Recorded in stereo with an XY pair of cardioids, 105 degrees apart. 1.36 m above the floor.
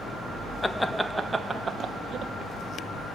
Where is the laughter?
15° left, 1.3 m; by 2.3 s 55° right, 2.0 m.